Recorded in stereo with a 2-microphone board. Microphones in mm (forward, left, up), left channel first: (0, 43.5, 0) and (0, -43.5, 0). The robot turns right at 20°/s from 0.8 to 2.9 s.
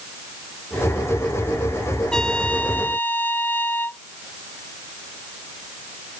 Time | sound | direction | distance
2.1 | a trumpet | 5° left (ahead or behind) | ?